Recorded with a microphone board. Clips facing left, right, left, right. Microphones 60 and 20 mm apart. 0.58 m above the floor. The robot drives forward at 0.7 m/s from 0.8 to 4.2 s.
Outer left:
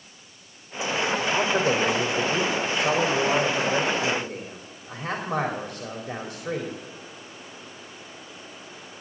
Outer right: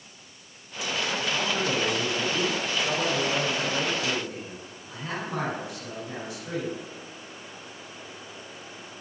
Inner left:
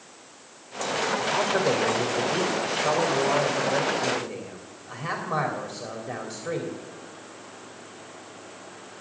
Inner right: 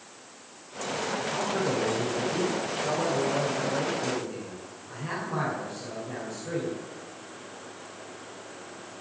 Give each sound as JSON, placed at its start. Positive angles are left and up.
{"t": 1.3, "sound": "a man speaking", "side_deg": 60, "distance_m": 2.5}